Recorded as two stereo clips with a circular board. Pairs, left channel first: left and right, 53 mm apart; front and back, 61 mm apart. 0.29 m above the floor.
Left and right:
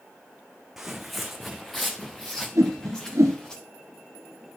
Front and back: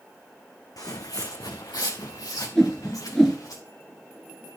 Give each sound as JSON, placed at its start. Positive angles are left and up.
{"t": 0.8, "sound": "footsteps", "azimuth_deg": -5, "distance_m": 1.0}
{"t": 2.5, "sound": "a whoosh", "azimuth_deg": -85, "distance_m": 1.8}